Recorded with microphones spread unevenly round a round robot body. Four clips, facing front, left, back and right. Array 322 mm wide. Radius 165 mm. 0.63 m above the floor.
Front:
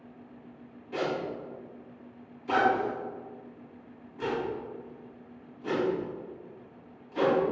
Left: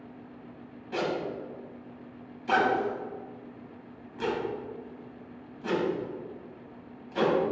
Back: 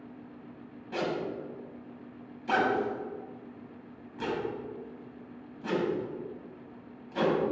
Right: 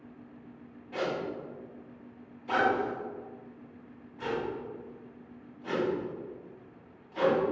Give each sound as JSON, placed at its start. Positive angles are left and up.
{"t": 0.9, "sound": "a zipper", "azimuth_deg": 130, "distance_m": 4.5}